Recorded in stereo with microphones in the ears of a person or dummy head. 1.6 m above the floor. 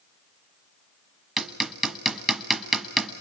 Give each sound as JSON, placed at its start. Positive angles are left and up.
{"t": 1.4, "sound": "hammering", "side_deg": 0, "distance_m": 1.5}